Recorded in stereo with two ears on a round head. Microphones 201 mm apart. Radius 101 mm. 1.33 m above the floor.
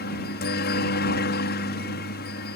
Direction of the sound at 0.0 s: 45° left (ahead or behind).